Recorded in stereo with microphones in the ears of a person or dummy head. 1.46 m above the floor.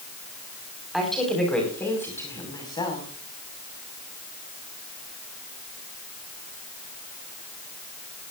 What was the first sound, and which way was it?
A woman speaking, centre (ahead or behind).